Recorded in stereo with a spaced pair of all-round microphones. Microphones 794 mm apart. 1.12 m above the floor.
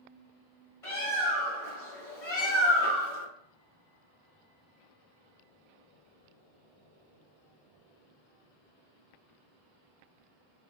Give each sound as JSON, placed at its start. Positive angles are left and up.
{"t": 0.8, "sound": "a bird", "side_deg": 45, "distance_m": 1.4}